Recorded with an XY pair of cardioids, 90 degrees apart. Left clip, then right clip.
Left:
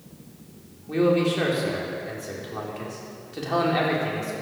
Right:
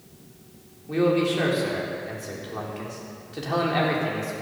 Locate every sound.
0.9 s a man speaking: straight ahead, 4 m